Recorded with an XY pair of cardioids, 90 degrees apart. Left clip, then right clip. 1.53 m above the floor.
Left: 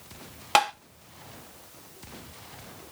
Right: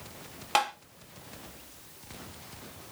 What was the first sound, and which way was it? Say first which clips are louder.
Tapping: left 5 dB; 45° left.